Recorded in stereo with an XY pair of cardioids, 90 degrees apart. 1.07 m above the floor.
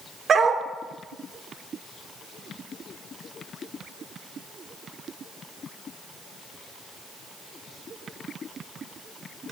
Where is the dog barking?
60° right, 1.3 m.